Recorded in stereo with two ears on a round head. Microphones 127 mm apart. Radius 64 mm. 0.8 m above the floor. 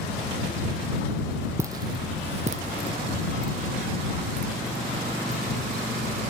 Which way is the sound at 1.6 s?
20° right (ahead or behind).